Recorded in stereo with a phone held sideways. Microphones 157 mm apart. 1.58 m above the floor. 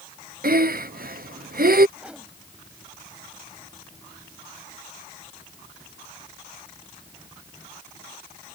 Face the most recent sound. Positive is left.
turn(degrees=-5)  # may be behind; listen again after turning